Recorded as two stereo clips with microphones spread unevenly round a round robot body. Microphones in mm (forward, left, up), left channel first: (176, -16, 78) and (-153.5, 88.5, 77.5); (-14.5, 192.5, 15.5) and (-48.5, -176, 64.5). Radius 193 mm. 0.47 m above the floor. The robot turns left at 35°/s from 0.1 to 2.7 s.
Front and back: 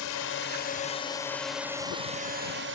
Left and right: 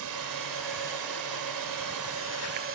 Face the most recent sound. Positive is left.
turn(degrees=-150)